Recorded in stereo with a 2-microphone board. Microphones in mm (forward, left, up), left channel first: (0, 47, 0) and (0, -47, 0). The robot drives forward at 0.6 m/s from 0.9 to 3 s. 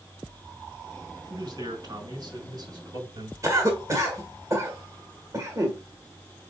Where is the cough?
35° right (ahead or behind), 1.3 m.